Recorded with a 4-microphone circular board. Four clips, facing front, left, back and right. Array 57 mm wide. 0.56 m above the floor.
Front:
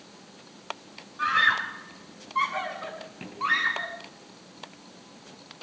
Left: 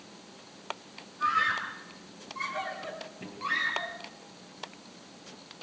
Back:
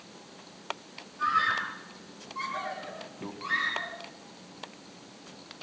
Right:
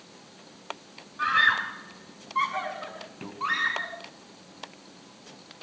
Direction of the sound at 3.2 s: 135° right.